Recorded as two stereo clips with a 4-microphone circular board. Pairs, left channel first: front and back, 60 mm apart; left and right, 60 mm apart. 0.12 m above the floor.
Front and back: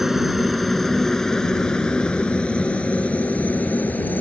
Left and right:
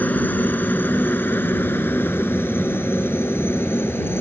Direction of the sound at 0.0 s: 100° left.